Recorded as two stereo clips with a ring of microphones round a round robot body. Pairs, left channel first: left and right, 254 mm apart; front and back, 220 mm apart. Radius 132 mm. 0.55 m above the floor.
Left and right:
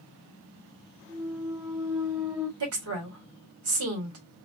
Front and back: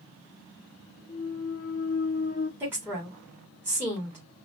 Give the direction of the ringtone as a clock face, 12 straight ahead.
I don't hear a ringtone.